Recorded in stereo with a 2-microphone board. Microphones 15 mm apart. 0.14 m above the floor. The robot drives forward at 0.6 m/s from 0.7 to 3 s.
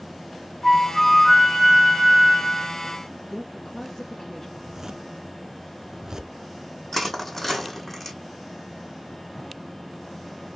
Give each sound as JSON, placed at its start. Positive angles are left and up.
{"t": 0.6, "sound": "a flute", "side_deg": 20, "distance_m": 1.3}
{"t": 3.2, "sound": "a woman speaking", "side_deg": 40, "distance_m": 1.6}
{"t": 4.6, "sound": "a zipper", "side_deg": -40, "distance_m": 0.7}
{"t": 6.9, "sound": "crushing", "side_deg": 20, "distance_m": 2.5}